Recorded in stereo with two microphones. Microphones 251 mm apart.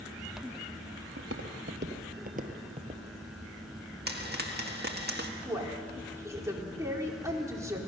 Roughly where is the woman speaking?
Centre.